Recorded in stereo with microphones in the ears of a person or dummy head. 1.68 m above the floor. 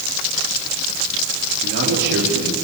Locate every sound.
1.6 s a man speaking: 55° right (ahead or behind), 5 m